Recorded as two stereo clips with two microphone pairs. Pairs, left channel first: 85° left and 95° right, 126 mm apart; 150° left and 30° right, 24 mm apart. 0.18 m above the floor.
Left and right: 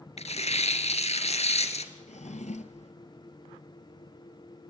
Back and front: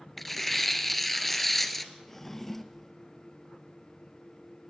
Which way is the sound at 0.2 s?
65° left.